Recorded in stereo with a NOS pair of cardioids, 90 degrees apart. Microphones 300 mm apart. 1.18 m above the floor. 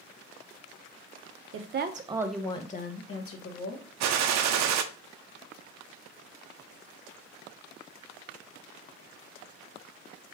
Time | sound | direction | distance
1.5 | a woman speaking | 50° right | 0.8 m
4.0 | a gunshot | 70° right | 0.5 m